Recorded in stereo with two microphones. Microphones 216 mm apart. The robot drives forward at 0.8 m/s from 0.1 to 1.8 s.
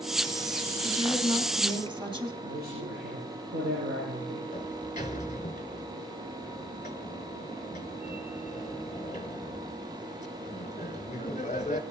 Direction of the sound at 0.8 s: 20° right (ahead or behind).